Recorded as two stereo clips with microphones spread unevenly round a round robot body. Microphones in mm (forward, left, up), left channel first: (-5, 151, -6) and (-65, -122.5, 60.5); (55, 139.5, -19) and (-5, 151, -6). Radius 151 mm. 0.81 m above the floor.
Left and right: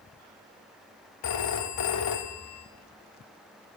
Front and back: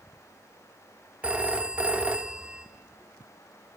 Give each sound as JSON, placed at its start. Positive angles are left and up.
{"t": 1.2, "sound": "a phone ringing", "azimuth_deg": 95, "distance_m": 1.3}